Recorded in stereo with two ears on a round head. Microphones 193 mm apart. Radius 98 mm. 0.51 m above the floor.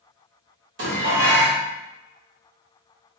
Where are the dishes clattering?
65° right (ahead or behind), 1.5 m.